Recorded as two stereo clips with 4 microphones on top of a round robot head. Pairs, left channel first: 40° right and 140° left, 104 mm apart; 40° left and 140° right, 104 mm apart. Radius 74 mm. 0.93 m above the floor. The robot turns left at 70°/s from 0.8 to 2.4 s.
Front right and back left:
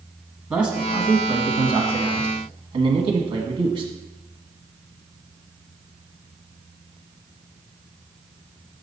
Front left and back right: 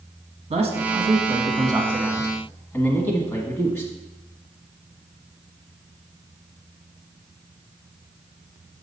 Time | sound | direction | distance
0.5 | a man speaking | 145° right | 1.5 m